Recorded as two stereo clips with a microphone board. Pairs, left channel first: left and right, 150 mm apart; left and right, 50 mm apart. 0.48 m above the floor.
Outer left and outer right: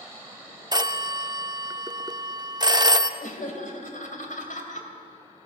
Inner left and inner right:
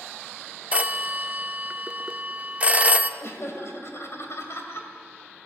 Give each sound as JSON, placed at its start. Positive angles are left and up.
{"t": 0.7, "sound": "a phone ringing", "side_deg": -30, "distance_m": 0.6}
{"t": 3.2, "sound": "laughter", "side_deg": 60, "distance_m": 2.5}